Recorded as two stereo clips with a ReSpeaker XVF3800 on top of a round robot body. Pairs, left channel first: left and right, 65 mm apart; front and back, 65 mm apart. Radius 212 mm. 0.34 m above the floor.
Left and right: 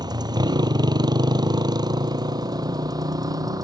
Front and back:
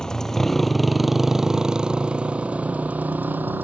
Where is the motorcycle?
80° right; by 3.6 s 120° right.